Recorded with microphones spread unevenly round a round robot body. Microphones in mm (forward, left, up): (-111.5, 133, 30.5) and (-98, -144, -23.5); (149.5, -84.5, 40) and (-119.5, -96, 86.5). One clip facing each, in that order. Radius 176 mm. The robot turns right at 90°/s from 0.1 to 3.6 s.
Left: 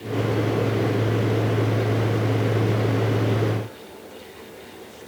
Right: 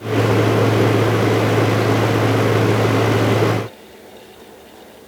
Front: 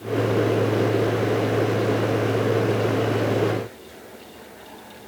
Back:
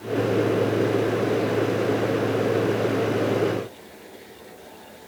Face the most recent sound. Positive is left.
No sound to turn to.